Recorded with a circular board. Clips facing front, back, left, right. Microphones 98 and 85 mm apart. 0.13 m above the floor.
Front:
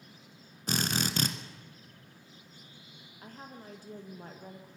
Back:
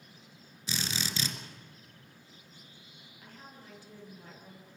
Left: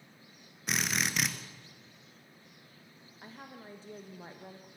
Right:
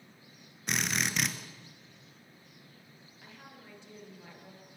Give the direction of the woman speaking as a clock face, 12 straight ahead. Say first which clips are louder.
Front 5 dB, left 5 dB; 11 o'clock.